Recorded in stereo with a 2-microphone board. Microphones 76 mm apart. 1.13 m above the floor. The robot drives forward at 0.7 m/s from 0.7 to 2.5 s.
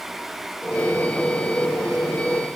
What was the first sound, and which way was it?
Only background noise.